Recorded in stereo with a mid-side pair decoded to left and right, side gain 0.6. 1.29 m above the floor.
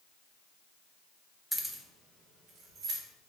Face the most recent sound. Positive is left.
turn(degrees=-50)